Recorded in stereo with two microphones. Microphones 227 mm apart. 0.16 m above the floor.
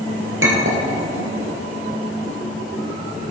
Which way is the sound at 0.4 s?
60° right (ahead or behind).